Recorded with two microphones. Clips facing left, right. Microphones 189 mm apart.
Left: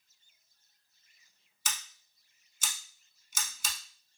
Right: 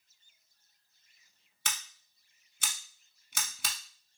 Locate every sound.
1.6 s scissors: 65° right (ahead or behind), 0.6 m